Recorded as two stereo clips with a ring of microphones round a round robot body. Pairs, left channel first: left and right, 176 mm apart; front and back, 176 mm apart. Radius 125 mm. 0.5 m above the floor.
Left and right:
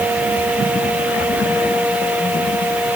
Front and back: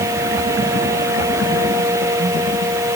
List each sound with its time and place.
Only background noise.